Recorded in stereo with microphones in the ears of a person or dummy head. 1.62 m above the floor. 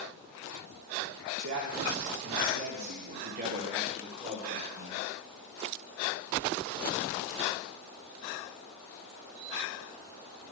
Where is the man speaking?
70° right (ahead or behind), 3 m; by 5.0 s 15° right (ahead or behind), 2.5 m.